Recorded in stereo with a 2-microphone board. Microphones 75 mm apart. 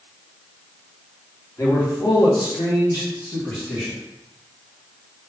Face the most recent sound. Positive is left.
turn(degrees=35)  # may be behind; listen again after turning